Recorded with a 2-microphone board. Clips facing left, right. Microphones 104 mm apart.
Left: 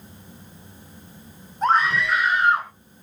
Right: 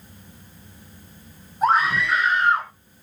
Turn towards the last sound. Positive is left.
turn(degrees=10)  # may be behind; listen again after turning